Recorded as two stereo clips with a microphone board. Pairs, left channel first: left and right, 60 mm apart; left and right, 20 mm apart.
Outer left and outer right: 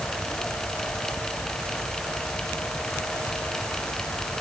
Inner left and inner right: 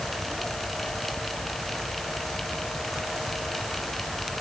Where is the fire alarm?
No fire alarm in this recording.